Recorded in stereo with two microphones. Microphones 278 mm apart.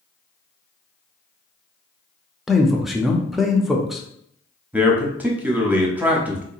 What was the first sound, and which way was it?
A man speaking, centre (ahead or behind).